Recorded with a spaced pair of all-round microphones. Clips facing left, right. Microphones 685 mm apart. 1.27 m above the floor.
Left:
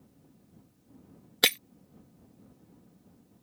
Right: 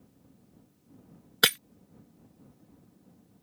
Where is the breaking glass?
45° right (ahead or behind).